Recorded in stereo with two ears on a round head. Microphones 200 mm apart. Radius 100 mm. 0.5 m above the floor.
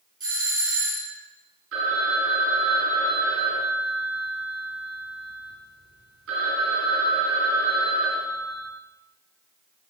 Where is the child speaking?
No child speaking in this recording.